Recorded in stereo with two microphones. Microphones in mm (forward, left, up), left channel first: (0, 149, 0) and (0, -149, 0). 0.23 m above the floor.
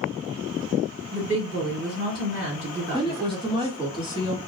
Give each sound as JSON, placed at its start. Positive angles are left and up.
{"t": 1.1, "sound": "a woman speaking", "side_deg": -50, "distance_m": 1.7}
{"t": 2.9, "sound": "a woman speaking", "side_deg": -15, "distance_m": 1.1}